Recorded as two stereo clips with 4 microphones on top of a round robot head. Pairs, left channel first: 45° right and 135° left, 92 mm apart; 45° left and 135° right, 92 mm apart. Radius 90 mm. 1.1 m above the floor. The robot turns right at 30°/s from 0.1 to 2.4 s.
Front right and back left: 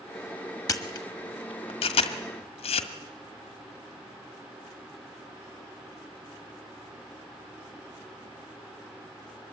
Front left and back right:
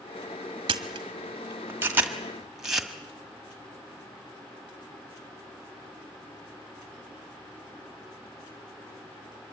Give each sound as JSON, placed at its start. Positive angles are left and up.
{"t": 0.7, "sound": "a camera shutter", "azimuth_deg": -100, "distance_m": 1.5}